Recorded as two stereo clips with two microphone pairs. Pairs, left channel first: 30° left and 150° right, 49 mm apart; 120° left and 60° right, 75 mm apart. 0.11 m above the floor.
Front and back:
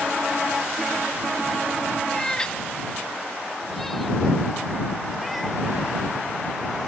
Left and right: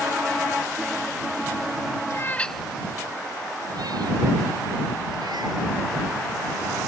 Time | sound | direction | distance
2.1 | a cat meowing | 105° left | ?